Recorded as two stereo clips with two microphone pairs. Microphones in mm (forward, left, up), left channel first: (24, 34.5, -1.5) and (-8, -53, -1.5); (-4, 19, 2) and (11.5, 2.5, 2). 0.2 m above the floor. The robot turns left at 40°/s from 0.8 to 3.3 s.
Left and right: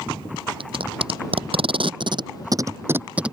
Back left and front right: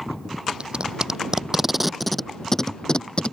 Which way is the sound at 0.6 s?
90° right.